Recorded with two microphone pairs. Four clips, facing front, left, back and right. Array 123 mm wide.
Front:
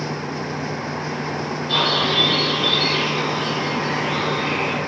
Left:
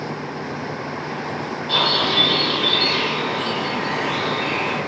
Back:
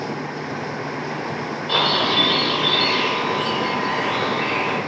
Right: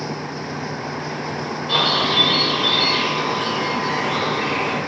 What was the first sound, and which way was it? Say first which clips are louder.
A bird: right 1 dB, back 1 dB; 145° right.